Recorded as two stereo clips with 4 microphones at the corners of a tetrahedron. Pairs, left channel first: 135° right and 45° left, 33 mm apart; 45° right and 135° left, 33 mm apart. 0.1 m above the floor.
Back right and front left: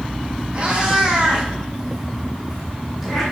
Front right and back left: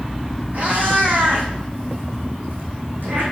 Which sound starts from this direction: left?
A cat meowing, at 0.5 s.